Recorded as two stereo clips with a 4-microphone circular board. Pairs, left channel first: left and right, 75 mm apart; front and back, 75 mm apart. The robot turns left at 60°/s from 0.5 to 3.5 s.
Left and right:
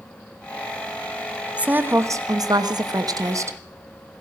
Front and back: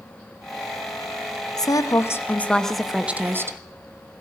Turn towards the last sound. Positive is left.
turn(degrees=-130)